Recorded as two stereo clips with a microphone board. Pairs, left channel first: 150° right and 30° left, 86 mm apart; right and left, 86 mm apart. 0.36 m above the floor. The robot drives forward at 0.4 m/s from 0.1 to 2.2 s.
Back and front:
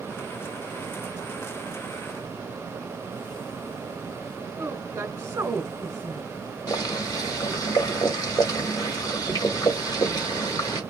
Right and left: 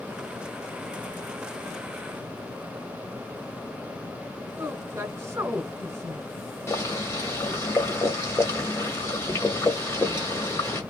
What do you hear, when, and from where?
4.6 s a woman speaking: 80° left, 1.5 m
6.7 s boiling: 135° right, 1.6 m